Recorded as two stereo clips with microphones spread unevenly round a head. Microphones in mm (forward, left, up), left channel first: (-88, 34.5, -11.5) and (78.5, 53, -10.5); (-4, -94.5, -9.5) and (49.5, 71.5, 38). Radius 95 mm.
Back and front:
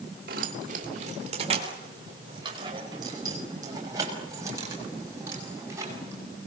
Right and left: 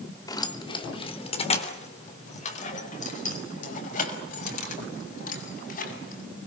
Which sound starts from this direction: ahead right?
Keys jangling, at 0.3 s.